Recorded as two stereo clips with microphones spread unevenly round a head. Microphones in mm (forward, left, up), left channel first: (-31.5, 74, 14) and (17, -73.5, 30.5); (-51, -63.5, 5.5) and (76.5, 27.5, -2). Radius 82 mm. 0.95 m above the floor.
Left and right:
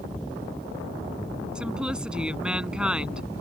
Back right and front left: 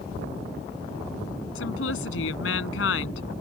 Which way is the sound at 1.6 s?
155° right.